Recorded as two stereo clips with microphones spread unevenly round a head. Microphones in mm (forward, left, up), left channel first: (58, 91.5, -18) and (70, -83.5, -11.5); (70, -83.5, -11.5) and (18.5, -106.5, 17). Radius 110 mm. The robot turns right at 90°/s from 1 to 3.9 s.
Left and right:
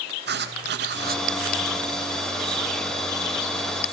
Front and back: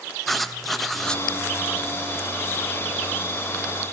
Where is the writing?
60° right, 1.8 m; by 1.2 s 40° right, 1.8 m.